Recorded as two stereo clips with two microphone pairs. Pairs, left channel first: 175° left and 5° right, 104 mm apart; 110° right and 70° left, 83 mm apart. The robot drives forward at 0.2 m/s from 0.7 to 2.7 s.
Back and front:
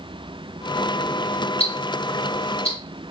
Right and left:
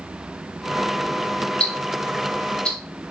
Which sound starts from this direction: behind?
Ticking, at 1.6 s.